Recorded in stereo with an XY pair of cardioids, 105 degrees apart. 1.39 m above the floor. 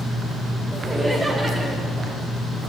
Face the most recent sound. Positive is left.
turn(degrees=-15)